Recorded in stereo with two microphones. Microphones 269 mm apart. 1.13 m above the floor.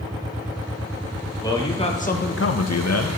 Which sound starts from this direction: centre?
A man speaking, at 1.4 s.